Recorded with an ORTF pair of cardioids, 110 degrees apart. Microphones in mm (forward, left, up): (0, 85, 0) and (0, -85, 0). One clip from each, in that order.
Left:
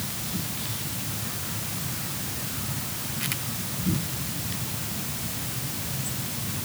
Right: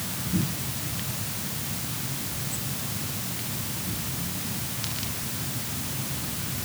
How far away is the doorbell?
I don't hear a doorbell.